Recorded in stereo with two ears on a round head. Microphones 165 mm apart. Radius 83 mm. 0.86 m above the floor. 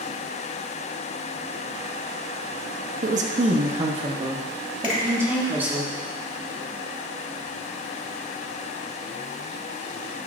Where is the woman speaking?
45° right (ahead or behind), 1.0 m; by 5.8 s 10° right (ahead or behind), 2 m.